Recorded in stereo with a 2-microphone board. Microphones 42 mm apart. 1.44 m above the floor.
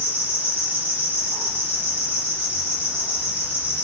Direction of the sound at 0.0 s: 65° right (ahead or behind).